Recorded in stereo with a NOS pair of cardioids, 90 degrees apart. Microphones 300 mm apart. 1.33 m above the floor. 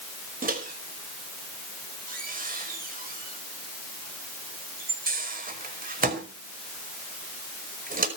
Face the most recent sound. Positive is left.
turn(degrees=-30)